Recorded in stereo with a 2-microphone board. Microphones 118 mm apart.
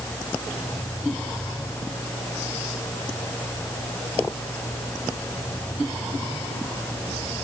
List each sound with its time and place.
Only background noise.